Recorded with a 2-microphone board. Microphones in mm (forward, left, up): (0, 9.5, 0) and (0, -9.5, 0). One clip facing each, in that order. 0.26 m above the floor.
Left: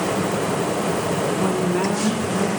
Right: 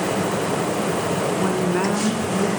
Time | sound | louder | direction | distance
1.4 | a woman speaking | even | 25° right (ahead or behind) | 2 m